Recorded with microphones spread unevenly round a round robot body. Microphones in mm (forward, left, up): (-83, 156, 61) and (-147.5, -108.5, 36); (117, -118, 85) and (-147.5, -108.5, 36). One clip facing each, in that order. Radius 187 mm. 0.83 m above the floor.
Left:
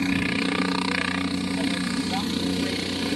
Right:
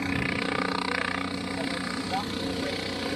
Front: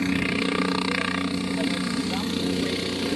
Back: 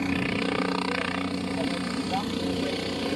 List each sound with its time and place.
0.0 s a helicopter: 60° left